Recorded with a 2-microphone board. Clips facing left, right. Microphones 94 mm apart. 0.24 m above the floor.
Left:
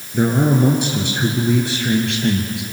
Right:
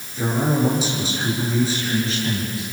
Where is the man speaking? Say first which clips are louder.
Left 5 dB; 60° left (ahead or behind), 4 m; by 2.6 s 70° left (ahead or behind), 4.5 m.